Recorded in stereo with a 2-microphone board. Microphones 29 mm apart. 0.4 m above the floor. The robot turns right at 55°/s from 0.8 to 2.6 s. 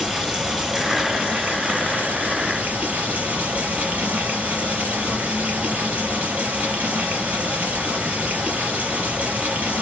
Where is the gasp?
No gasp in this recording.